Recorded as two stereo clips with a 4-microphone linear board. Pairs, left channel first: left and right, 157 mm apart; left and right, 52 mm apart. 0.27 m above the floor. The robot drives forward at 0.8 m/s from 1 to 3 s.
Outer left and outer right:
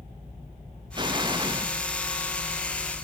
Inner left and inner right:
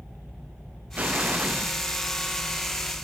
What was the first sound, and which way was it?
An explosion, 30° right (ahead or behind).